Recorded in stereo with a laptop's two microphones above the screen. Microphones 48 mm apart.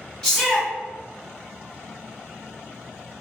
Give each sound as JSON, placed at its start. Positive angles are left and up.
{"t": 0.2, "sound": "a shout", "side_deg": 5, "distance_m": 1.3}